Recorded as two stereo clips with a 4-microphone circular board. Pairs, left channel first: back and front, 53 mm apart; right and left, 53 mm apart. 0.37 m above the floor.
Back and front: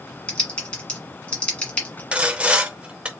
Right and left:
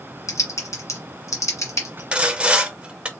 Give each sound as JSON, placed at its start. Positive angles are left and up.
{"t": 0.3, "sound": "typing on a keyboard", "azimuth_deg": -110, "distance_m": 1.4}
{"t": 2.1, "sound": "sawing", "azimuth_deg": 45, "distance_m": 0.8}